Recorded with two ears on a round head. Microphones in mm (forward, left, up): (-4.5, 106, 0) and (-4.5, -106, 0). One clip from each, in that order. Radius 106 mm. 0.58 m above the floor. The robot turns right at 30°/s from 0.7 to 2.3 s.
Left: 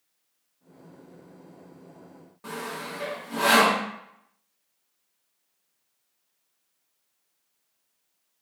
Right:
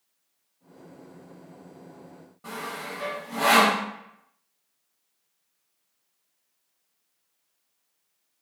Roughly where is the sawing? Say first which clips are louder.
Even; left.